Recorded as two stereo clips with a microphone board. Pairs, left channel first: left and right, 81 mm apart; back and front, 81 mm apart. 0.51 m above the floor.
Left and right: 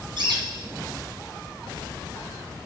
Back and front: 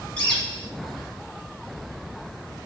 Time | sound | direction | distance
0.2 | a bird | 105° right | 3.5 m